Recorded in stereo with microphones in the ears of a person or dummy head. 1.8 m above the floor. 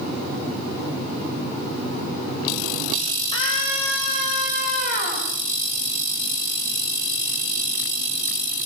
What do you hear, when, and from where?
3.3 s a scream: 30° left (ahead or behind), 8 m; by 5.3 s 45° left (ahead or behind), 8.5 m